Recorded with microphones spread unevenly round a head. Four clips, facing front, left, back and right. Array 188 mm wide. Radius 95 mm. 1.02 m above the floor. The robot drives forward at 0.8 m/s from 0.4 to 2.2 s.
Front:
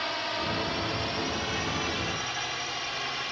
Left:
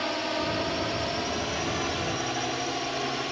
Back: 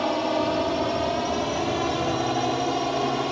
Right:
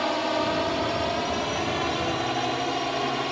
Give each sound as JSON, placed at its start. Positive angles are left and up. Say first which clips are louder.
{"t": 0.0, "sound": "a drone", "louder": "right 4 dB, back 9 dB", "azimuth_deg": -165}